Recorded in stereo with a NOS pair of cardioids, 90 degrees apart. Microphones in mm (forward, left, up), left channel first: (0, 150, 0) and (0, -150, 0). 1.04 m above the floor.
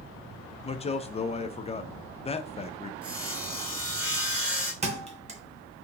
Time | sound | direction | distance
0.6 | a man speaking | 20° left | 0.5 m
3.0 | sawing | 5° right | 1.8 m
4.8 | a thud | 25° right | 0.9 m